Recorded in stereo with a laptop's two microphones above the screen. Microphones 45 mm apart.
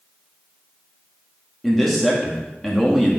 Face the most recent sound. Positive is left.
turn(degrees=0)  # may be behind; listen again after turning